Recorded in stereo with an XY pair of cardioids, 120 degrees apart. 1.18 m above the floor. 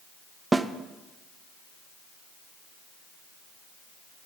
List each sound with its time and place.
0.5 s a snare drum: 20° right, 0.6 m